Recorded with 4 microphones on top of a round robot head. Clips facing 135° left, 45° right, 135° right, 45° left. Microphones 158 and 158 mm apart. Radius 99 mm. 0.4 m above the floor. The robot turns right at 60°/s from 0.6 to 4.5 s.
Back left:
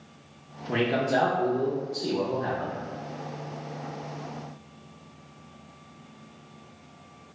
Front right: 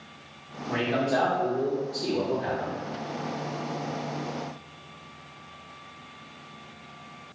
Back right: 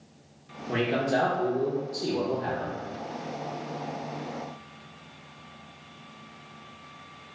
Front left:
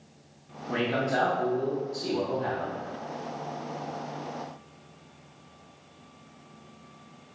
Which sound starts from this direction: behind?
A man speaking, at 0.7 s.